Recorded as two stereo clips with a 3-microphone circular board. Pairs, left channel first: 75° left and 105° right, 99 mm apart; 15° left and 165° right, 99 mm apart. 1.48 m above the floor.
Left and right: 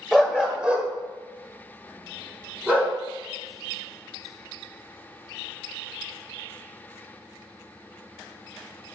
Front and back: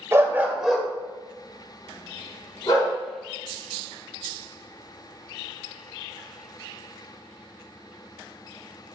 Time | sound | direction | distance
0.1 | a dog barking | 175° left | 1.3 m